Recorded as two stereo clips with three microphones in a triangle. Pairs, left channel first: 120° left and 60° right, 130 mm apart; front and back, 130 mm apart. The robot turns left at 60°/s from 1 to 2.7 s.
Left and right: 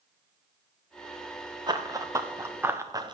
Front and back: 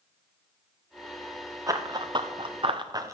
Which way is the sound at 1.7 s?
115° right.